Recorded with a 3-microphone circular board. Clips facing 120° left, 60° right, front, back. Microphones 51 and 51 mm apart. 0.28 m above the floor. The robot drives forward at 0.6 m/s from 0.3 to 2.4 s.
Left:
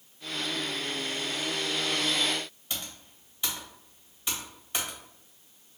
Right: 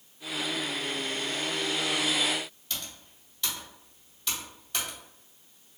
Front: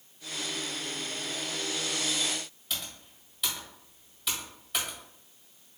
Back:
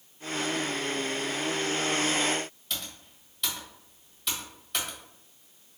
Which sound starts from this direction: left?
Typing on a keyboard, at 2.7 s.